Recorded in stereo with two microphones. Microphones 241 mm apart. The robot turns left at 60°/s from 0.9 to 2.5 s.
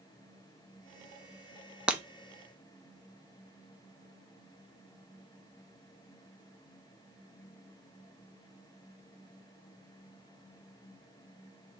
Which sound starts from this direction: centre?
Breaking glass, at 1.9 s.